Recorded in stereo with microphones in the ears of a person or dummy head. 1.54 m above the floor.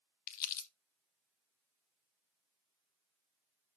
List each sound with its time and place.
0.3 s crumpling: 50° left (ahead or behind), 0.9 m